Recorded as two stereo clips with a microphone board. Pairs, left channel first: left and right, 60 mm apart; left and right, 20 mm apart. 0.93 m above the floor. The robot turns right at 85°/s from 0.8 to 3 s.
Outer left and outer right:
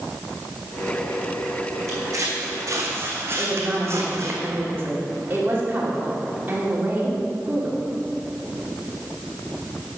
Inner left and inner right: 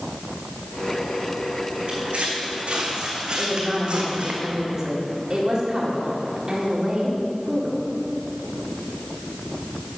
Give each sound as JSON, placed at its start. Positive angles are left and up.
{"t": 1.9, "sound": "footsteps", "side_deg": -50, "distance_m": 3.0}
{"t": 3.4, "sound": "a woman speaking", "side_deg": -30, "distance_m": 3.0}